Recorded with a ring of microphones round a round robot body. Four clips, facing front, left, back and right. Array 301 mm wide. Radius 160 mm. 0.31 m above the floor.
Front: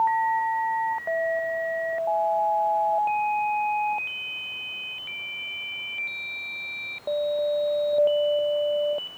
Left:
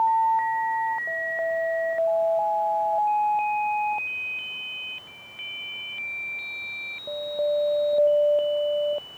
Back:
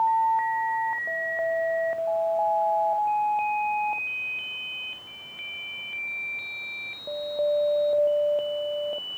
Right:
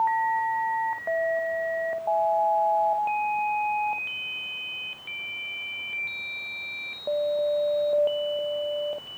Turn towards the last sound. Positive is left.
No sound to turn to.